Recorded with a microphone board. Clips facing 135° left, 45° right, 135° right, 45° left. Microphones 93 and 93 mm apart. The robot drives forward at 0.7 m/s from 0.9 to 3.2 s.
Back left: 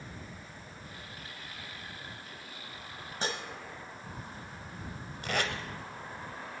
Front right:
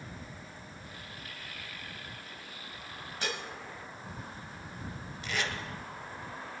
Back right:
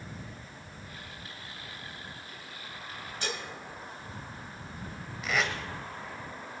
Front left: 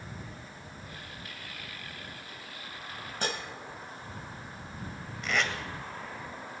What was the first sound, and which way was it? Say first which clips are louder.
Dishes clattering: back left 2 dB, front left 3 dB; 80° left.